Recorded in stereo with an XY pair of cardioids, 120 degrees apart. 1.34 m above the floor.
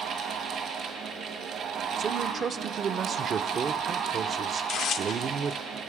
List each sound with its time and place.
0.0 s a fan: 70° right, 1.3 m
2.0 s a man speaking: 50° right, 0.5 m
4.6 s tearing paper: 60° left, 0.6 m